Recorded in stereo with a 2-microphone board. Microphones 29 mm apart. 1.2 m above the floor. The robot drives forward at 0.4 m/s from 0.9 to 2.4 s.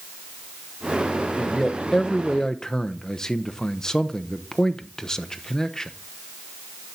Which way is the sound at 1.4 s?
15° left (ahead or behind).